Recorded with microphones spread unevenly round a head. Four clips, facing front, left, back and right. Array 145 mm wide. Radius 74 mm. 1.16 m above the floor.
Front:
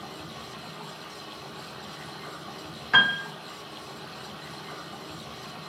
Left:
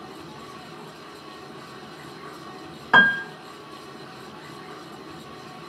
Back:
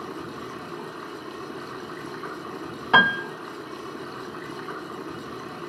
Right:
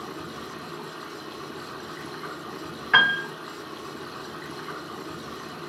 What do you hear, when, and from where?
0.0 s running water: 165° right, 3 m
2.9 s a piano: 140° left, 0.8 m